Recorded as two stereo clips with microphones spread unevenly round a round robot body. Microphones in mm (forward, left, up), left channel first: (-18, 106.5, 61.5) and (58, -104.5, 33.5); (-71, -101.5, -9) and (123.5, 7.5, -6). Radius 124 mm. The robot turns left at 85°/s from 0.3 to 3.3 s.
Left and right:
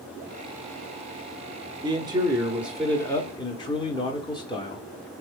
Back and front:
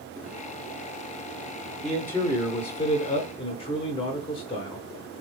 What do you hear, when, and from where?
1.8 s a man speaking: 60° right, 0.8 m; by 4.8 s 175° left, 0.8 m